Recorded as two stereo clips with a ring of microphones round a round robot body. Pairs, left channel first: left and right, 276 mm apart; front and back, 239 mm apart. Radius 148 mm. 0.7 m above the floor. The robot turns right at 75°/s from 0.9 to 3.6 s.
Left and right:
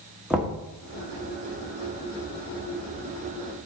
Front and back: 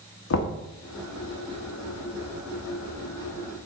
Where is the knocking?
5° right, 1.2 m.